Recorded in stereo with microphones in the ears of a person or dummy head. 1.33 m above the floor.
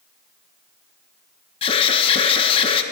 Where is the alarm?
30° left (ahead or behind), 1.8 m.